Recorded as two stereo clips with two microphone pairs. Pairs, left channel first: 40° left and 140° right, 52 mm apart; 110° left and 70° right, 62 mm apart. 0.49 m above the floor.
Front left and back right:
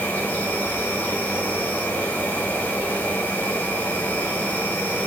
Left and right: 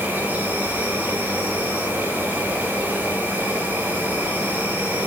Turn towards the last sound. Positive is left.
turn(degrees=-10)